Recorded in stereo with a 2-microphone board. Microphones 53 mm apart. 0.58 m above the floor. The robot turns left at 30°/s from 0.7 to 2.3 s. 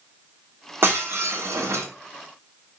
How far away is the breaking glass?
About 1.2 m.